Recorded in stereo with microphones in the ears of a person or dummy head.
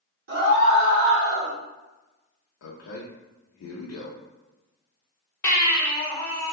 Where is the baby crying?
15° left (ahead or behind), 1.1 m.